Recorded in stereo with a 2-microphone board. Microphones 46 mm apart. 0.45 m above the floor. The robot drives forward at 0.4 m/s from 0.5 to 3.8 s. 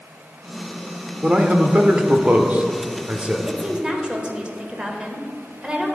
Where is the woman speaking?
25° right (ahead or behind), 1.4 m; by 6.0 s 20° right (ahead or behind), 1.5 m.